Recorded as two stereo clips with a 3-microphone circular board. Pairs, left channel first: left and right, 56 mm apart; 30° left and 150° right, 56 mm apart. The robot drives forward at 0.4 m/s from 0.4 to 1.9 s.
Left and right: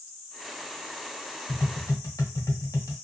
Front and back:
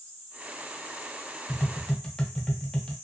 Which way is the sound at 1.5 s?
85° left.